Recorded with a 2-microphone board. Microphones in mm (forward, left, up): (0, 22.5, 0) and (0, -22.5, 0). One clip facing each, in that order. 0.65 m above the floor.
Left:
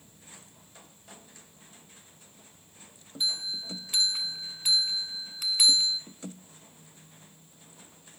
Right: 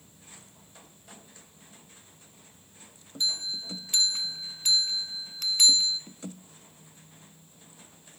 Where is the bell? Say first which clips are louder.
Right 1 dB; 10° left (ahead or behind), 1.7 m.